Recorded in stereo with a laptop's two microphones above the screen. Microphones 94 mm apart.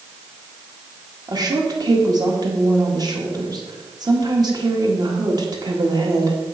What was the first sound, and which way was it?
A woman speaking, 45° right (ahead or behind).